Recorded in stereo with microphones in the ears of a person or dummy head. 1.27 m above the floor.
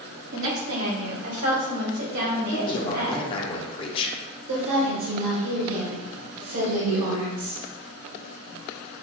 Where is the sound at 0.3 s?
60° right (ahead or behind), 0.7 m; by 3.2 s 80° right, 2.5 m.